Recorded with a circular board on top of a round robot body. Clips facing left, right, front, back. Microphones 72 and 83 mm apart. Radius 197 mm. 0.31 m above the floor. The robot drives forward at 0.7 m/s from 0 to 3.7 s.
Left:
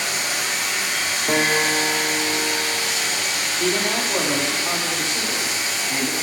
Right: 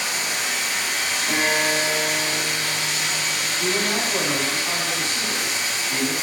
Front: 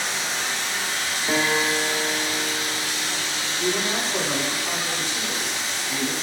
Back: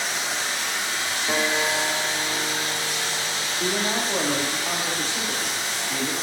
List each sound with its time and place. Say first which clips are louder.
0.0 s running water: left 1 dB, even; 90° left, 2.5 m; by 6.2 s 135° left, 3.5 m
1.3 s a guitar: left 2 dB, front 2 dB; 70° left, 1.6 m; by 4.4 s 140° left, 2.0 m
3.6 s a man speaking: left 2 dB, even; 140° left, 2 m